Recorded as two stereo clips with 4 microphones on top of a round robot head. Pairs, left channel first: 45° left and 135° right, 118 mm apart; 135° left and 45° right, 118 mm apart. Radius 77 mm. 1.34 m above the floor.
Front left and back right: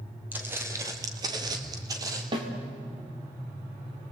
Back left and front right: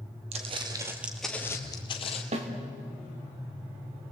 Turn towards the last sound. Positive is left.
turn(degrees=-80)